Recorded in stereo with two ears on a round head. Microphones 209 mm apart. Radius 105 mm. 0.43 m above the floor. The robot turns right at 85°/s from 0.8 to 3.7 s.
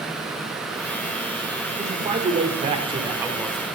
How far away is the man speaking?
About 1.3 m.